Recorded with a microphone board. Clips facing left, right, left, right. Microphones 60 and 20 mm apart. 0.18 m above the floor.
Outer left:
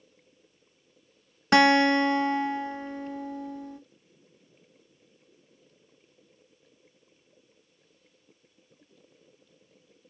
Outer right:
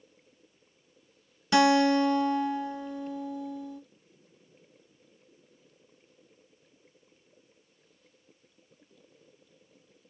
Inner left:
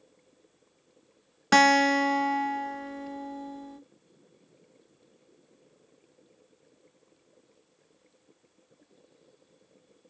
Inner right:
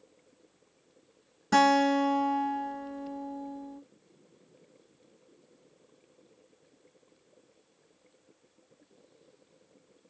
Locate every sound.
1.5 s a guitar: 55° left (ahead or behind), 0.5 m